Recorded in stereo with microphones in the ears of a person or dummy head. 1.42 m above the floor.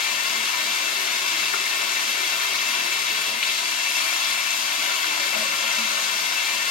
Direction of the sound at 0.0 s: 40° left (ahead or behind).